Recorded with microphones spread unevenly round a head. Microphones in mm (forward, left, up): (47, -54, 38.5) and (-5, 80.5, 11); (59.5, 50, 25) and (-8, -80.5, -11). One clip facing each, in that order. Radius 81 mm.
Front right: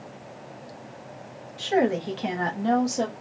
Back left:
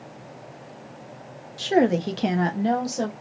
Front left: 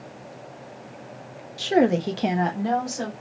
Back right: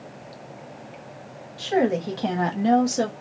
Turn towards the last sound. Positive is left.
turn(degrees=-140)